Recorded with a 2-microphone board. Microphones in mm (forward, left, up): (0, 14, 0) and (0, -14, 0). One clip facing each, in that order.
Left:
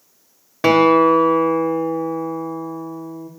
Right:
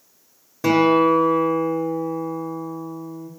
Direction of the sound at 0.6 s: 60° left (ahead or behind).